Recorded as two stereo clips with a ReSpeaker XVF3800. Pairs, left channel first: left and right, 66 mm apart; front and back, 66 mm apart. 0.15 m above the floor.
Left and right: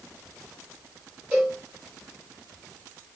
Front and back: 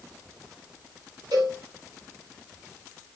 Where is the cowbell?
165° right, 4.5 m.